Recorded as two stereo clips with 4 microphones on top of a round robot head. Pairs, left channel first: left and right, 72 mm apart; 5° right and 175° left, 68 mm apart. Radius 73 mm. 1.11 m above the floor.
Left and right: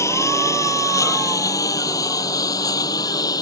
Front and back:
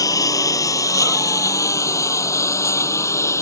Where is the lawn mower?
30° left; by 3.4 s 45° left.